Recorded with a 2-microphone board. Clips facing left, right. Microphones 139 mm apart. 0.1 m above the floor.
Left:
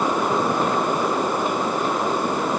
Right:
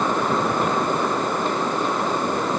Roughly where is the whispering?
No whispering in this recording.